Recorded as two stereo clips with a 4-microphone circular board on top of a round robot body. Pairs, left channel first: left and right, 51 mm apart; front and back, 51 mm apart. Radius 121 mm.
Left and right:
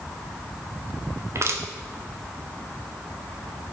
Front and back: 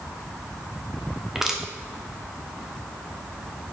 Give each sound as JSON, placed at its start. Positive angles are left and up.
{"t": 1.4, "sound": "crushing", "azimuth_deg": -100, "distance_m": 2.0}